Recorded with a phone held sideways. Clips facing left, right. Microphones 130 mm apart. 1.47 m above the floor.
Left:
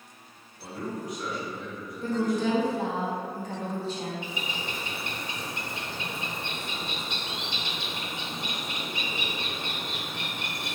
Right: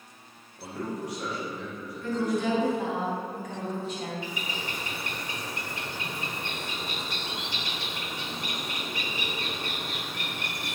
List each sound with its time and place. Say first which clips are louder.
0.6 s a man speaking: right 1 dB; 80° right, 2 m
2.0 s a woman speaking: left 1 dB; 30° left (ahead or behind), 1.5 m
4.2 s a bird: even; 20° left (ahead or behind), 0.9 m